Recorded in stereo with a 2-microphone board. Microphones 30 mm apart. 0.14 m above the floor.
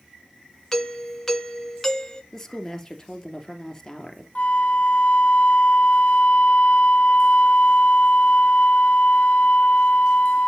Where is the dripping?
I don't hear dripping.